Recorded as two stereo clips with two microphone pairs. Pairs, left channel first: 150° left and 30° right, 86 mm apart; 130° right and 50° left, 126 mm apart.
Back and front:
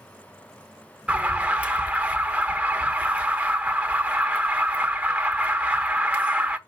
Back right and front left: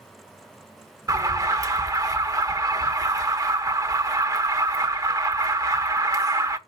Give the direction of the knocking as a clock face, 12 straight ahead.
I don't hear knocking.